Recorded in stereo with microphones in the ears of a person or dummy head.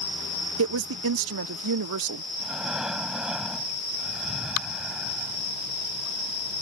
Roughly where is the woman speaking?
Right.